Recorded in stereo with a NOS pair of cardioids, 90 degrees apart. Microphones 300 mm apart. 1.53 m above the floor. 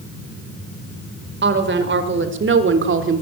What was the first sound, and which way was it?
A woman speaking, 35° right.